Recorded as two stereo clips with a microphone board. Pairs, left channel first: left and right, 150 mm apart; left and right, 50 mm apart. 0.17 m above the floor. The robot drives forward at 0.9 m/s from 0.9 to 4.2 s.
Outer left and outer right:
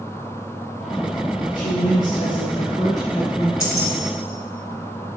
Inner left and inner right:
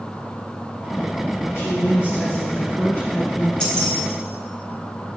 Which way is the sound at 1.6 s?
65° left (ahead or behind).